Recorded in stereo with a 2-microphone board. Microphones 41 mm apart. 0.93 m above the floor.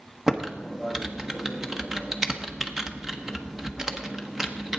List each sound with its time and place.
0.3 s typing on a keyboard: 10° right (ahead or behind), 1.1 m